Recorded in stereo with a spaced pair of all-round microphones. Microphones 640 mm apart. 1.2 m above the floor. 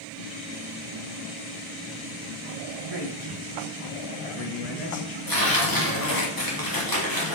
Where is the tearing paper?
35° left (ahead or behind), 2.5 m.